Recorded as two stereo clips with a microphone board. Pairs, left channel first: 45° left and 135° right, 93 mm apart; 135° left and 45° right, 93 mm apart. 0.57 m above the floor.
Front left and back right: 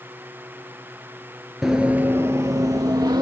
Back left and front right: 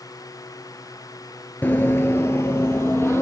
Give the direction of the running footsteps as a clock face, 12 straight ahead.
7 o'clock.